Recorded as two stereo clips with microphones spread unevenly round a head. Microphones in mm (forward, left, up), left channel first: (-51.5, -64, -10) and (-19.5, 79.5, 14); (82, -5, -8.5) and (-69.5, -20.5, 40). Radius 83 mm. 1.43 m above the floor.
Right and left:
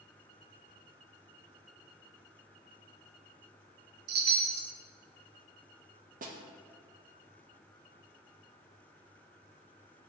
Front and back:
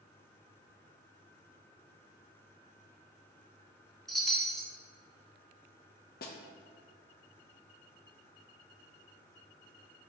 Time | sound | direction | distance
4.1 | a chime | 90° left | 0.9 m
6.2 | a snare drum | 45° left | 0.8 m